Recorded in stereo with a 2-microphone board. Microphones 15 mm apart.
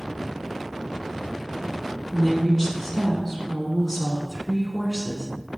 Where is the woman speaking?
20° left (ahead or behind), 1.0 m.